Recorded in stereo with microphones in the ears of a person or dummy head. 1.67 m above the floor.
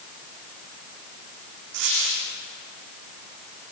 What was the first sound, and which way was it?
A dropped coin, 60° right (ahead or behind).